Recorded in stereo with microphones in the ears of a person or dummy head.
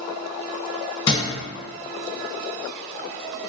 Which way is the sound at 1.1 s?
20° left (ahead or behind).